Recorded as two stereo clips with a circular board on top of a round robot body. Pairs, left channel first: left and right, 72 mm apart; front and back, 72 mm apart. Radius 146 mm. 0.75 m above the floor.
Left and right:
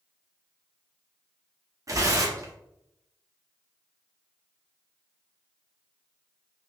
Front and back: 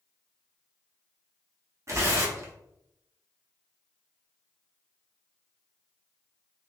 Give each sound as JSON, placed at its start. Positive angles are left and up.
{"t": 1.9, "sound": "tearing paper", "azimuth_deg": -130, "distance_m": 1.2}